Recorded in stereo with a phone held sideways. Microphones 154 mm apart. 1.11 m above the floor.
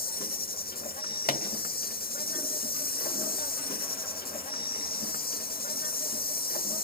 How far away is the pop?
About 1.7 m.